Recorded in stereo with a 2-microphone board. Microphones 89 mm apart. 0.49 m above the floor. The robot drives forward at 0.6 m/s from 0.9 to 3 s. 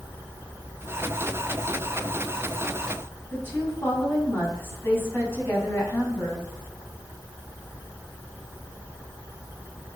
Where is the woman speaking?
25° left (ahead or behind), 4 m.